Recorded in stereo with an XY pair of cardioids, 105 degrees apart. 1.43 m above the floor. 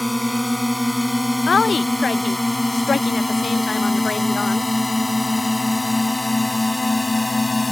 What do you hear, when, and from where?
0.0 s a drone: 10° left; by 7.7 s 20° left
1.5 s a woman speaking: 35° left